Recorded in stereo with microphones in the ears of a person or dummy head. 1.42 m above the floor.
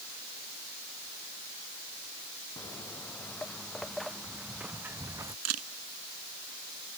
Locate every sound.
2.6 s footsteps: 15° left (ahead or behind); by 5.3 s 15° right (ahead or behind)
5.5 s a camera shutter: 90° right